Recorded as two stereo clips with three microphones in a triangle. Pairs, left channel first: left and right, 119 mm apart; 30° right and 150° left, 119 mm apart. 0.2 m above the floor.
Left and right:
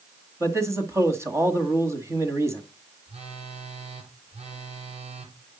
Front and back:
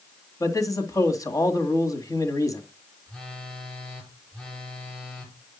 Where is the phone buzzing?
115° right, 3 m.